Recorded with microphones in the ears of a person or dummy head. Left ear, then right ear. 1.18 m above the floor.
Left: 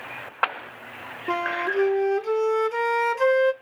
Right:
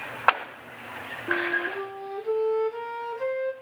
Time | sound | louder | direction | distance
1.3 | a flute | left 2 dB | 55° left (ahead or behind) | 1.0 m